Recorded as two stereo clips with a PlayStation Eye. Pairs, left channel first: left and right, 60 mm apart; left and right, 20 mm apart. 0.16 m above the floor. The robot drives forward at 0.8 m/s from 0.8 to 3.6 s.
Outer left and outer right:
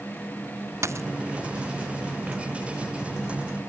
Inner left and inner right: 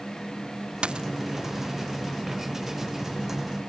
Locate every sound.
0.8 s a dropped coin: 50° right (ahead or behind)